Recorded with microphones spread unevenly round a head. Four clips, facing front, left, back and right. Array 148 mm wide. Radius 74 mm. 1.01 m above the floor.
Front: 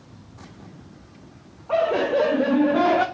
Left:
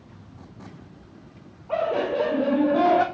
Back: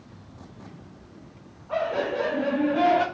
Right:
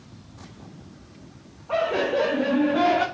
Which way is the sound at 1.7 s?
Straight ahead.